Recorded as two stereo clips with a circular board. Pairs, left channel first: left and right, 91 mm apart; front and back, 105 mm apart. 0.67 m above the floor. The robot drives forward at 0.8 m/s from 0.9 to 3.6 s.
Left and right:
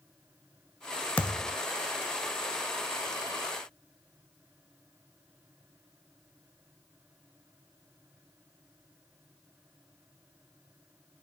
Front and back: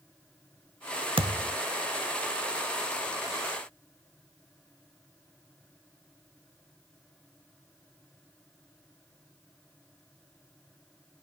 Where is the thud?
160° left, 0.7 m; by 1.6 s 165° left, 1.0 m.